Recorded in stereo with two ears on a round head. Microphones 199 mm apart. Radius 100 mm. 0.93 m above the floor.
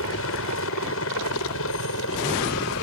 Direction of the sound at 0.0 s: 65° left (ahead or behind).